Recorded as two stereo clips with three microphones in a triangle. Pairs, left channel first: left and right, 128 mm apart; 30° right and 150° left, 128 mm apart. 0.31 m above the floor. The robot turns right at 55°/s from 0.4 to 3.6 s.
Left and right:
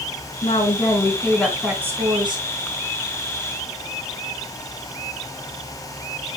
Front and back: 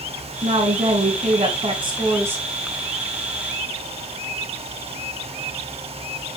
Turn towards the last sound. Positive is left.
turn(degrees=-70)